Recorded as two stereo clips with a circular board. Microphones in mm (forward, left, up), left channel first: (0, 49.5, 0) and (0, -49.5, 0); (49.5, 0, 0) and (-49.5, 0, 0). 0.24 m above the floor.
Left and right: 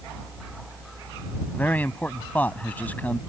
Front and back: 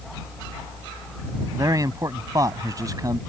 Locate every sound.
1.5 s a man speaking: 155° left